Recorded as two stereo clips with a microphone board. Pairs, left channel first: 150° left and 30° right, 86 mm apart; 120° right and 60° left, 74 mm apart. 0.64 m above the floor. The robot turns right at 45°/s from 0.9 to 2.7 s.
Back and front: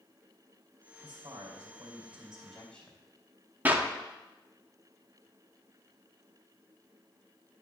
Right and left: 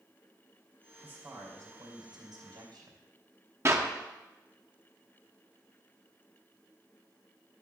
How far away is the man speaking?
About 3 m.